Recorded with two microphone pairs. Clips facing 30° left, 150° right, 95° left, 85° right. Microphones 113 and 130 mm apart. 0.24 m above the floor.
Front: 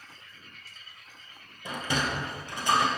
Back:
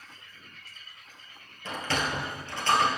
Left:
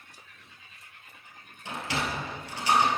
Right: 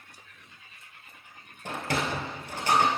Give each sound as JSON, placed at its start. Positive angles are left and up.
{"t": 1.6, "sound": "a sliding door", "azimuth_deg": -45, "distance_m": 1.1}